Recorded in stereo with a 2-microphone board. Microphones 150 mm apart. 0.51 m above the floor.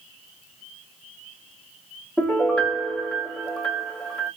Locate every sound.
2.2 s a piano: 5° left (ahead or behind), 1.1 m